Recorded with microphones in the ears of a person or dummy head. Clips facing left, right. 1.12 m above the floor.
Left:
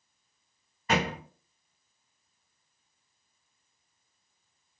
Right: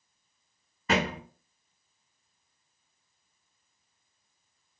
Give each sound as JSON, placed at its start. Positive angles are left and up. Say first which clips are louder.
{"t": 0.9, "sound": "a thud", "louder": "right 1 dB", "side_deg": -70, "distance_m": 1.3}